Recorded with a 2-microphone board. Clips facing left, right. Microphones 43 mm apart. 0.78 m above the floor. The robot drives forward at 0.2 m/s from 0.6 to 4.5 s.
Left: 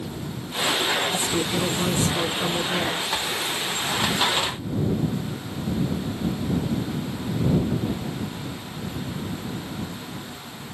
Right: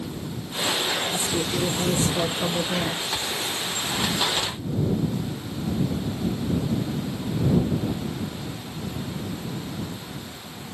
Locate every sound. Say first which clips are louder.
1.1 s a woman speaking: left 1 dB; 25° left (ahead or behind), 1.8 m